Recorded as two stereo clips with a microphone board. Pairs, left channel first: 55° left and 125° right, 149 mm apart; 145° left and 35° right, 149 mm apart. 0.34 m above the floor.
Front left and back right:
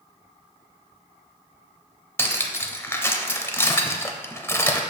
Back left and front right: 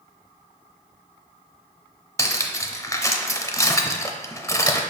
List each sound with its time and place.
2.2 s cutlery clinking: 105° left, 0.6 m